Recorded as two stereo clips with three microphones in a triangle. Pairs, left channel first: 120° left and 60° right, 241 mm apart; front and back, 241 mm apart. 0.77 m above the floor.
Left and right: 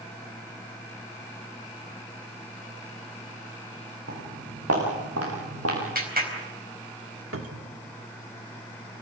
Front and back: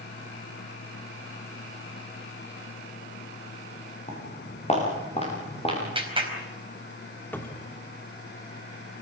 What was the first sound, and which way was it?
Footsteps, 60° right.